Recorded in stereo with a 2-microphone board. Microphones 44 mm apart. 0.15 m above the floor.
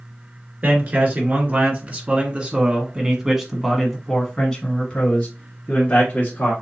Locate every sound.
0.6 s a man speaking: 40° right (ahead or behind), 2.5 m; by 6.5 s 35° left (ahead or behind), 2.5 m